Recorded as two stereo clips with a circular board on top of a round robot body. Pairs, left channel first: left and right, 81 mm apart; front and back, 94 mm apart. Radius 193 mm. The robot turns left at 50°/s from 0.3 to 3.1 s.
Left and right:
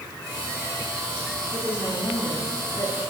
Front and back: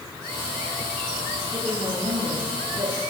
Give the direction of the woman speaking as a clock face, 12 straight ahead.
5 o'clock.